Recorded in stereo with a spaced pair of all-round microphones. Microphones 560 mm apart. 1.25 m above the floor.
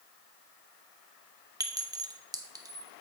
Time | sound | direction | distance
1.6 | a clink | 5° right (ahead or behind) | 0.6 m